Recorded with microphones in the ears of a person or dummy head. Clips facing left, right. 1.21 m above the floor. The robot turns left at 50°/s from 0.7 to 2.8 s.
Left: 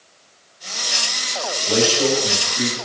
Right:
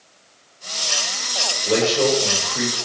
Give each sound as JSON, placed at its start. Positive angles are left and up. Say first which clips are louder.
{"t": 1.6, "sound": "a man speaking", "louder": "right 1 dB", "azimuth_deg": -30, "distance_m": 5.5}